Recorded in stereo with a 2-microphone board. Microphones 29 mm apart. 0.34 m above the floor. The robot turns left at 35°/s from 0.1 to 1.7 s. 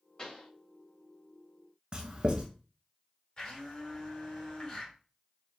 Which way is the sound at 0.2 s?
25° left (ahead or behind).